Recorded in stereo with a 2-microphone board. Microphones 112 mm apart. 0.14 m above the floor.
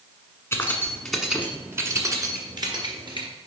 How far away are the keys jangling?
About 1.0 m.